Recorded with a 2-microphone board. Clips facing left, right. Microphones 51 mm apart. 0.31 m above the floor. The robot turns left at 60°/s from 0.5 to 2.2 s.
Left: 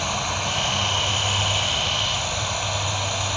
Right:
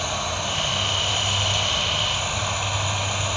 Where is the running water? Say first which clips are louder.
Left 1 dB; 75° left, 1.7 m; by 3.4 s 25° right, 1.7 m.